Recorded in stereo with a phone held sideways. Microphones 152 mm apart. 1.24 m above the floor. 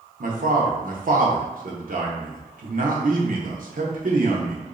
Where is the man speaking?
65° right (ahead or behind), 0.9 m.